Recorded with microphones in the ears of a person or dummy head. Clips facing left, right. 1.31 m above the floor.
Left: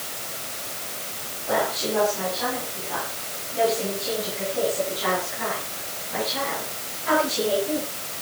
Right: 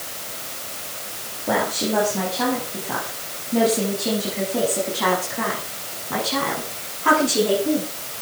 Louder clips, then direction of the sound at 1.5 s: Right 2 dB; 55° right (ahead or behind).